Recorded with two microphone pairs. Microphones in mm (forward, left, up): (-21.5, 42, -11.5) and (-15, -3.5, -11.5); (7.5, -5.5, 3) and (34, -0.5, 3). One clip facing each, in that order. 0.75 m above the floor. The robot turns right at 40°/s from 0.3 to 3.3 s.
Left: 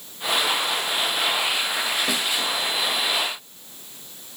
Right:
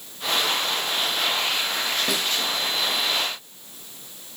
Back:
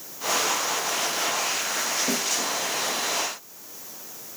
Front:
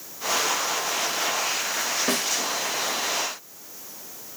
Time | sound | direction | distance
2.1 | a snare drum | 15° left | 1.1 m